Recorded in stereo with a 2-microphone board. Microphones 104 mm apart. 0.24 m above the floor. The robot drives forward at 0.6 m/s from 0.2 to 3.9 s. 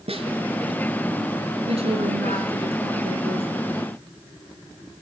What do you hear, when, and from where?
0.1 s a snare drum: 70° right (ahead or behind), 1.9 m
1.7 s a woman speaking: 75° right (ahead or behind), 4 m; by 3.5 s 70° right (ahead or behind), 4 m